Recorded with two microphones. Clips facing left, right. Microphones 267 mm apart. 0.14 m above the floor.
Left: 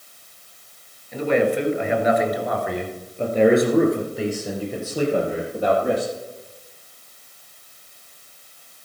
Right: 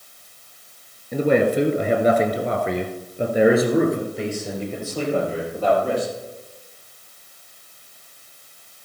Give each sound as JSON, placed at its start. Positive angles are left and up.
{"t": 1.1, "sound": "a man speaking", "side_deg": -55, "distance_m": 2.0}